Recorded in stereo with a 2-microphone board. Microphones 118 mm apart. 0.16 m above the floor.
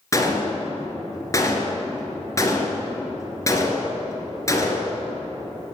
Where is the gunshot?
25° left (ahead or behind), 2 m.